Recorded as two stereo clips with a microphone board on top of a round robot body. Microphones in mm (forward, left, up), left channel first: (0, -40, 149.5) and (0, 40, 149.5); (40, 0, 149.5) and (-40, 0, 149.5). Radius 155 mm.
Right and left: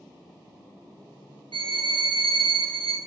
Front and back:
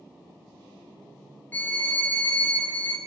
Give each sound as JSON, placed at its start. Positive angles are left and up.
{"t": 1.5, "sound": "a violin", "azimuth_deg": 70, "distance_m": 1.0}